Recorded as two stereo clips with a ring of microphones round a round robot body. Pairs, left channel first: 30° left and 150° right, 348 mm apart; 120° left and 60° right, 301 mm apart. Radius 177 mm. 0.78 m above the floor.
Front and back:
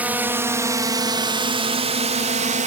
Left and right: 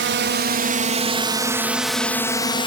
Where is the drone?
65° right; by 2.7 s 170° left.